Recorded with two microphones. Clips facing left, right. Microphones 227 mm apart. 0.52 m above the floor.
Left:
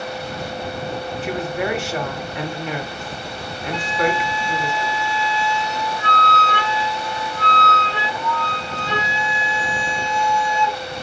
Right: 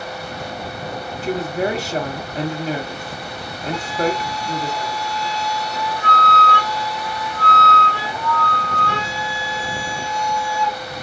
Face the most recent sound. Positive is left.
turn(degrees=20)  # may be behind; listen again after turning